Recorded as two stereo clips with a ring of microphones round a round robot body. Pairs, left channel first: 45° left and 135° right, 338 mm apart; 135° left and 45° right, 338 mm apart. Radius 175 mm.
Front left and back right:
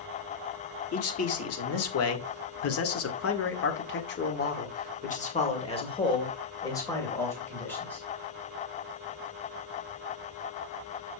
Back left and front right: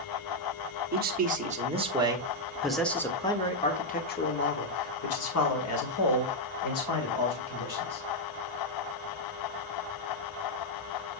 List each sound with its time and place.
0.9 s a man speaking: 10° left, 2.0 m; by 8.0 s 130° left, 3 m